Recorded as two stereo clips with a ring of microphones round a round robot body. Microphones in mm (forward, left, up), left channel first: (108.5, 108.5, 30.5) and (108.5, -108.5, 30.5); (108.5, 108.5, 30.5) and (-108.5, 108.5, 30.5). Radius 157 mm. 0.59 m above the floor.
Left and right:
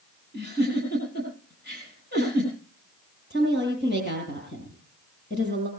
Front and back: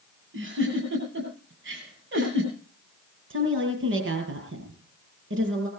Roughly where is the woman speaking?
Behind left.